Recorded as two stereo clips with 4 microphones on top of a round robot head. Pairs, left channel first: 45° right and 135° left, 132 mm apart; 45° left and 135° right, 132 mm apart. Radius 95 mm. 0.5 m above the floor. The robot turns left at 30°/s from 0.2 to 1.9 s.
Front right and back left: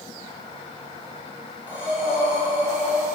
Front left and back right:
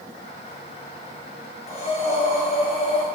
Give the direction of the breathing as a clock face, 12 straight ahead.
10 o'clock.